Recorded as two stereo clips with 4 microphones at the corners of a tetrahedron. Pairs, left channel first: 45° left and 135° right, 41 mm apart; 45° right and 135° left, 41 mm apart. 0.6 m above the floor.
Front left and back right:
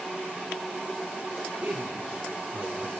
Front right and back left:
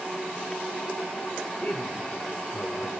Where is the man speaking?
95° right, 2 m.